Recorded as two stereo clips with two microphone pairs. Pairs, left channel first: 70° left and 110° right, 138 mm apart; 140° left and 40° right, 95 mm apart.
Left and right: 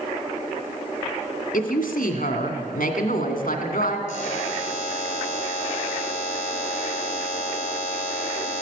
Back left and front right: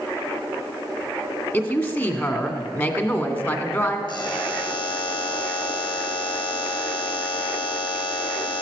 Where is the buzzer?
100° left, 3 m.